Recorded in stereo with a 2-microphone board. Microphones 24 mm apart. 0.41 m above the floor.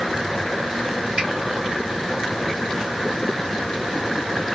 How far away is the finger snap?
About 1.9 m.